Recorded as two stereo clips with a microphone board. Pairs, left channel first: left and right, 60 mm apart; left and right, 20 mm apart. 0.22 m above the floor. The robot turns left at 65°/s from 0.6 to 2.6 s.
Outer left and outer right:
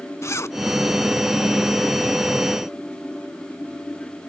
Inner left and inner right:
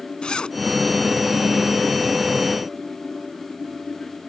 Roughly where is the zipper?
Left.